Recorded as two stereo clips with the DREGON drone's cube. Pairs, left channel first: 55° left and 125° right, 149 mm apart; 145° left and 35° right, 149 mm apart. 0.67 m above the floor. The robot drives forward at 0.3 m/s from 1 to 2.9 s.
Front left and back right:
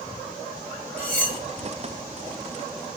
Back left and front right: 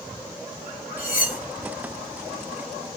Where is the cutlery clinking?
135° left, 0.7 m; by 1.4 s 140° left, 0.8 m.